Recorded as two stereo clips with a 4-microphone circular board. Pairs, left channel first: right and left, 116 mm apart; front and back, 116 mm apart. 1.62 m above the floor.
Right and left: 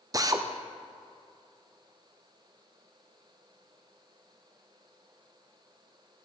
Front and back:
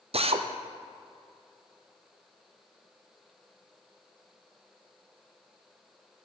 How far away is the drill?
About 0.5 m.